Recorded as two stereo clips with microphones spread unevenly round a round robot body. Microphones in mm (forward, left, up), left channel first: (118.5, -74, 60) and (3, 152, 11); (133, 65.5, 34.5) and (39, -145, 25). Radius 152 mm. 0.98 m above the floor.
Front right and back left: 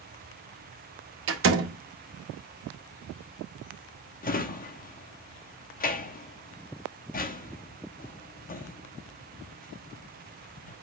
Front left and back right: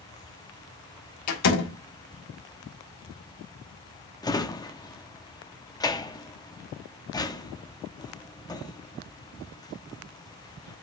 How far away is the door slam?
About 1.6 m.